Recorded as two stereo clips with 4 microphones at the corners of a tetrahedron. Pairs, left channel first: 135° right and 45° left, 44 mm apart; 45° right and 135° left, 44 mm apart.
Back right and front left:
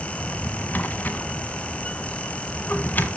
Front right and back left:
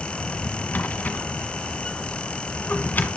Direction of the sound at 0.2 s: 90° right.